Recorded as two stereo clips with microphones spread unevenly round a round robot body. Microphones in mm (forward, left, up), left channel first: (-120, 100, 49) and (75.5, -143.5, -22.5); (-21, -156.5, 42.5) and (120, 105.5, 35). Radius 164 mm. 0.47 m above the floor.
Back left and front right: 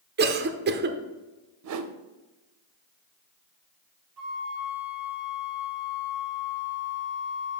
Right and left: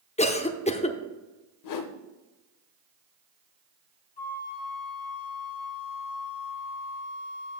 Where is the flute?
60° right, 2.5 m.